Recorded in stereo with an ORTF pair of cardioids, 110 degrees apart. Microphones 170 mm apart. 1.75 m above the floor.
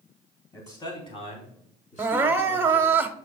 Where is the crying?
15° right, 0.9 m.